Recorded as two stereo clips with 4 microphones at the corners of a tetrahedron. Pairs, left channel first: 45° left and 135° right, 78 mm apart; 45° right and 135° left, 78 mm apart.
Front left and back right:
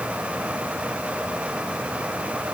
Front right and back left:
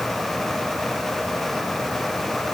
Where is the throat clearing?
No throat clearing in this recording.